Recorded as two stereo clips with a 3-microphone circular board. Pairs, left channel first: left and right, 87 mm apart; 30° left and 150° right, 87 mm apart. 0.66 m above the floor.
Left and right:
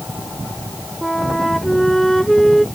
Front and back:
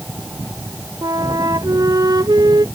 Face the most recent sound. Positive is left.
turn(degrees=175)